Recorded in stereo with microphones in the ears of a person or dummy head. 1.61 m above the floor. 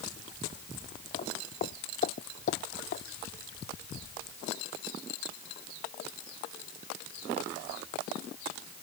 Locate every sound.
1.1 s footsteps: 45° left (ahead or behind); by 3.0 s 55° left (ahead or behind)